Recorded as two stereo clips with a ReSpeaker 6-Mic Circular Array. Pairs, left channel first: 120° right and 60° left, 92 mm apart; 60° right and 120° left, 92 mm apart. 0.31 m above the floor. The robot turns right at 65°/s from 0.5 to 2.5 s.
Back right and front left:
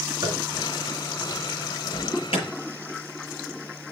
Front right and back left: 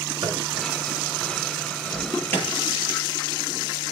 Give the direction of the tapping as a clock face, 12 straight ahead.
9 o'clock.